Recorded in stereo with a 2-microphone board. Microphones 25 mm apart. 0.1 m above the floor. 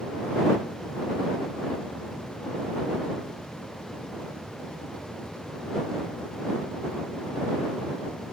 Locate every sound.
Only background noise.